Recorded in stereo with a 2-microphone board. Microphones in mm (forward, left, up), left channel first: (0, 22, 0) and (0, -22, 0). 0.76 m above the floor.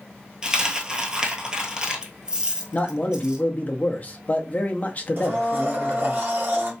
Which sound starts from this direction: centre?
A dropped coin, at 0.4 s.